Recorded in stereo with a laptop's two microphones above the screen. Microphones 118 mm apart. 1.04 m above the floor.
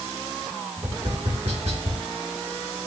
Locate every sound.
0.8 s tapping: 65° right (ahead or behind), 2 m